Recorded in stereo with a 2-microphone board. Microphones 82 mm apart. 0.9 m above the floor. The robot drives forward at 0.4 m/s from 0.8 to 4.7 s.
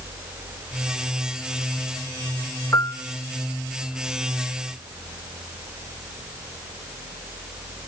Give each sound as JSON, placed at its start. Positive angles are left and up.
{"t": 2.7, "sound": "a piano", "side_deg": 35, "distance_m": 0.7}